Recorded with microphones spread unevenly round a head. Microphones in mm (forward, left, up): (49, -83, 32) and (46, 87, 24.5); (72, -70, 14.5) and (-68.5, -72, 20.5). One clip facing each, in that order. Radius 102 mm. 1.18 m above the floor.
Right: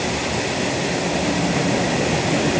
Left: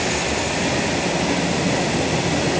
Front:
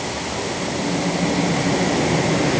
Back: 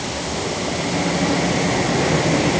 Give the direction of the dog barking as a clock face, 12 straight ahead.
No dog barking in this recording.